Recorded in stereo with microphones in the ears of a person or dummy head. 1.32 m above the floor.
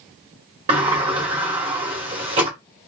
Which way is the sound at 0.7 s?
25° right (ahead or behind).